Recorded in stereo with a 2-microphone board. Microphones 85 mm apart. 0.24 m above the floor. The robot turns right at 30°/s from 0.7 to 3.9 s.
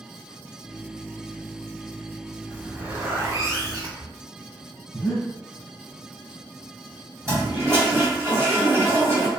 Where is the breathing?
30° left (ahead or behind), 1.0 m.